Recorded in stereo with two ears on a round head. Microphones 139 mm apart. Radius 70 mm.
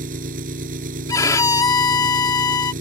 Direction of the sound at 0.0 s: 60° right (ahead or behind).